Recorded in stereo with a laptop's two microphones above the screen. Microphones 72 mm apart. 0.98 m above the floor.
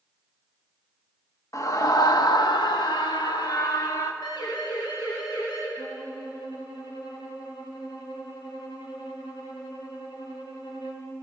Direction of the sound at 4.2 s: 65° left (ahead or behind).